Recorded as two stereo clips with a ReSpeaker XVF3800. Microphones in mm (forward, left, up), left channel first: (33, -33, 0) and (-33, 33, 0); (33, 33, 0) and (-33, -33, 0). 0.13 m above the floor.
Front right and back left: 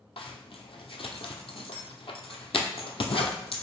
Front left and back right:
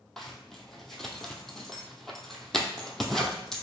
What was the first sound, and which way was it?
A zipper, 40° right.